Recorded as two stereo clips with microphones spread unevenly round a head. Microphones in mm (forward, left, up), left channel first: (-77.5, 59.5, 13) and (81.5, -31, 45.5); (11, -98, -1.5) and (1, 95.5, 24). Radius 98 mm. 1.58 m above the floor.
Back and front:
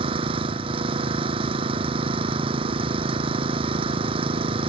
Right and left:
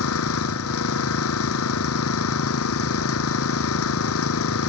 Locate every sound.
0.0 s an engine running: 90° right